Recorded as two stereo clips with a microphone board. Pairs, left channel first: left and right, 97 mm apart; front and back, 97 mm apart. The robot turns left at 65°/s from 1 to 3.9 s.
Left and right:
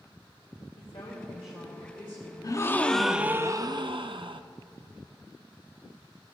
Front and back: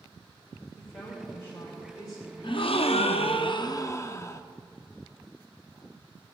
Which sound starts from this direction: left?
A woman speaking, at 0.8 s.